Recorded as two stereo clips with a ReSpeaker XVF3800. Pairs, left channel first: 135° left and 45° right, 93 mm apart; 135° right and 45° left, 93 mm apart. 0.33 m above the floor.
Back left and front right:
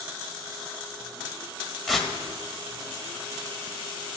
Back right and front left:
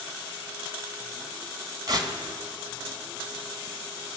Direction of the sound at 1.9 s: 50° left.